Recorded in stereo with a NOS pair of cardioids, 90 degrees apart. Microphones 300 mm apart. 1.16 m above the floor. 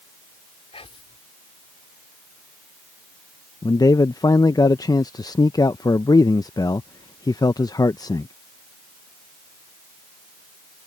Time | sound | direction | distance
0.7 | whispering | 20° left | ?
3.6 | a man speaking | 15° left | ?